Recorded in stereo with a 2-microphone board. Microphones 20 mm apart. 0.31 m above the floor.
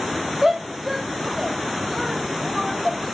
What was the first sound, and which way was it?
A shout, 15° right (ahead or behind).